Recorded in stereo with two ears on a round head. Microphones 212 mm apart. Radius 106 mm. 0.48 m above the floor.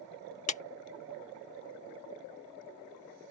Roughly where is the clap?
Left.